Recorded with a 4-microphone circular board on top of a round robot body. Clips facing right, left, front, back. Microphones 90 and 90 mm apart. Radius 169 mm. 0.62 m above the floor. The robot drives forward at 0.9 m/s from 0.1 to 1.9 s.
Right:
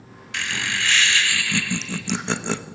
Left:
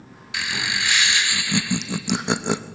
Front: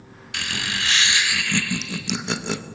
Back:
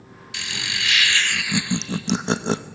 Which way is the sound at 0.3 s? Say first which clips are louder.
Even, front 3 dB; 10° left.